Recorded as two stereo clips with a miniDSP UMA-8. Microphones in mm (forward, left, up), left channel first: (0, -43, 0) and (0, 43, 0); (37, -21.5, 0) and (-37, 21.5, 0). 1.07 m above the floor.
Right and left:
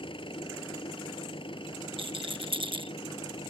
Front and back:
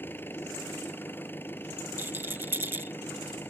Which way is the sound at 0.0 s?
95° right.